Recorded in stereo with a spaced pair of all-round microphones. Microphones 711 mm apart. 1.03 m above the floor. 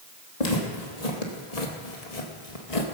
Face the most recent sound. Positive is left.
turn(degrees=50)  # may be behind; listen again after turning